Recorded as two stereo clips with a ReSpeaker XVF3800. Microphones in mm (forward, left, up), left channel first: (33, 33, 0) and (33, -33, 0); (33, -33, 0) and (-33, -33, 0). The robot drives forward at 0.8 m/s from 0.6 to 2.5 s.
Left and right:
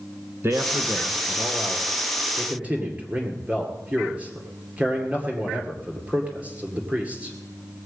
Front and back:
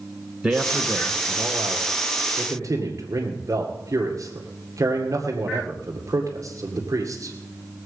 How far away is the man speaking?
About 1.2 m.